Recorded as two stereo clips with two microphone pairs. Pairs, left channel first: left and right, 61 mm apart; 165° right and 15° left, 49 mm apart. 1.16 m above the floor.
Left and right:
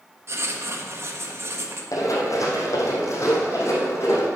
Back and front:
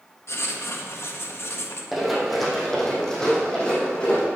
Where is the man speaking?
No man speaking in this recording.